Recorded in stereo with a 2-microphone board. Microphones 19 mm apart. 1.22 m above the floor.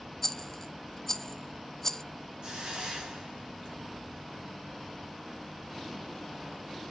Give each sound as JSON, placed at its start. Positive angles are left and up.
{"t": 0.2, "sound": "a rattle", "side_deg": 15, "distance_m": 0.9}
{"t": 2.4, "sound": "a hiss", "side_deg": -55, "distance_m": 5.5}